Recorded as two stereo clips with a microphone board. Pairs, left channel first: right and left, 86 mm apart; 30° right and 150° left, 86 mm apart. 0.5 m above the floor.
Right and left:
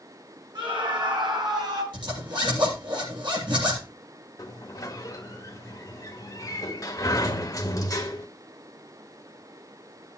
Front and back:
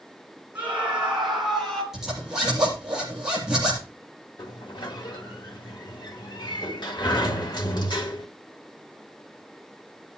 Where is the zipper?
65° left, 6.5 m.